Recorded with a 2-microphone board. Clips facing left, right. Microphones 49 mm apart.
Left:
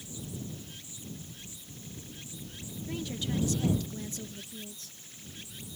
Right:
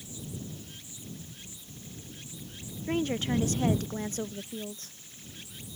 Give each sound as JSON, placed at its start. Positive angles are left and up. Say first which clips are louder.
{"t": 2.9, "sound": "a woman speaking", "louder": "right 7 dB", "side_deg": -45}